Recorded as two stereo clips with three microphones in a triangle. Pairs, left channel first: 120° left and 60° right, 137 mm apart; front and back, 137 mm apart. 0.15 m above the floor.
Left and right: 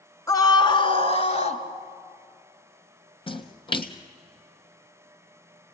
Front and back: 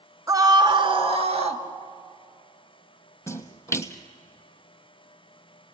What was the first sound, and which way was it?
A scream, 150° left.